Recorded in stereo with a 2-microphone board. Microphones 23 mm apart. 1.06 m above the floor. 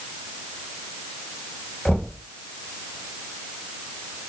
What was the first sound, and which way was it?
Knocking, 50° left (ahead or behind).